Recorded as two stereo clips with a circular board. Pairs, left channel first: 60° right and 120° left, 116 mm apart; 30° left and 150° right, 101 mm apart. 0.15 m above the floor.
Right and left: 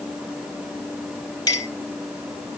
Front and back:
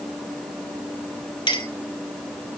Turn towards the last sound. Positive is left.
turn(degrees=-10)